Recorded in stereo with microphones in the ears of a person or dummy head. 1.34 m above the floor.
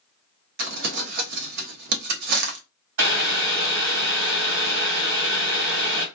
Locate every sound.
0.6 s crumpling: 55° right (ahead or behind), 0.7 m
3.0 s boiling: 65° right (ahead or behind), 1.4 m